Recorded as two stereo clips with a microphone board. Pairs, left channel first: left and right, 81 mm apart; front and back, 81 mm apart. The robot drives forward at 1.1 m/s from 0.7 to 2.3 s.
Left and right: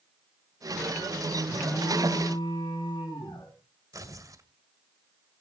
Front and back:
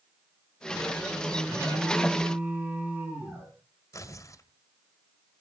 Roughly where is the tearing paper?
Ahead right.